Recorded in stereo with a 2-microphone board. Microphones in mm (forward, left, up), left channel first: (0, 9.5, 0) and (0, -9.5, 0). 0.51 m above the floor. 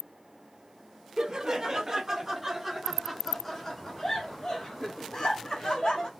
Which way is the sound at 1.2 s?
45° right (ahead or behind).